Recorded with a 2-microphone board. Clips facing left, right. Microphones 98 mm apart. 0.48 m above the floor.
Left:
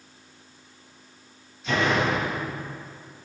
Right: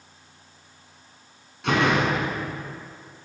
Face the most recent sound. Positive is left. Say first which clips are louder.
# right 2 dB
turn(degrees=-70)  # may be behind; listen again after turning